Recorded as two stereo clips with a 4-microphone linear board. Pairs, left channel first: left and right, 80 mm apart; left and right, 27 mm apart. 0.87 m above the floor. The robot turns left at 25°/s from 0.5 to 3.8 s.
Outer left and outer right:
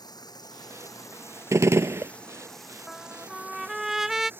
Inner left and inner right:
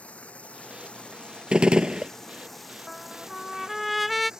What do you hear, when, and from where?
0.0 s running water: 55° left; by 4.4 s 30° right
1.5 s a gunshot: 35° right (ahead or behind); by 2.1 s 30° right (ahead or behind)
2.9 s a trumpet: 5° left (ahead or behind); by 4.3 s 5° right (ahead or behind)